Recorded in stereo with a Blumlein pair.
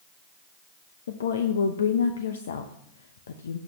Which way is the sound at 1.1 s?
65° left.